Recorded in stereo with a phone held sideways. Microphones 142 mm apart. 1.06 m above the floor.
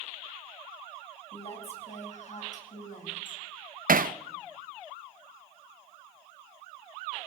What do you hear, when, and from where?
1.3 s a woman speaking: 45° left (ahead or behind), 5.5 m; by 3.4 s 70° left (ahead or behind), 6 m
3.9 s hammering: 85° right, 0.6 m